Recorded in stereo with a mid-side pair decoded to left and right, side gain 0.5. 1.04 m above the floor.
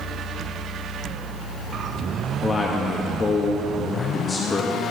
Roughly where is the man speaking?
Ahead left.